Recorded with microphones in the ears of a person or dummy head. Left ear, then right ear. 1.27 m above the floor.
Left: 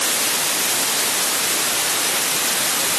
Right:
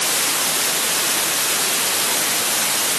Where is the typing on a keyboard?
I don't hear typing on a keyboard.